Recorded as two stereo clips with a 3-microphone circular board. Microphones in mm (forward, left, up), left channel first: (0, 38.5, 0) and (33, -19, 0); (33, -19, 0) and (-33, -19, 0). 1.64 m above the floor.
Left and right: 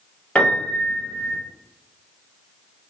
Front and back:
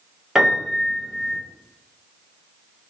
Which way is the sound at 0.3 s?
115° left.